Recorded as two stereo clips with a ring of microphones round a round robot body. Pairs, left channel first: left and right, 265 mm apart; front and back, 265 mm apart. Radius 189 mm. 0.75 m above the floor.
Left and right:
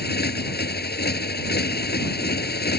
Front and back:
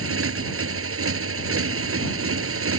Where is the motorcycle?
145° left.